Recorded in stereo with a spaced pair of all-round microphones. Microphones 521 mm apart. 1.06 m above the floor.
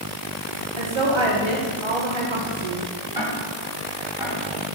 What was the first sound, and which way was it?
A woman speaking, 60° right (ahead or behind).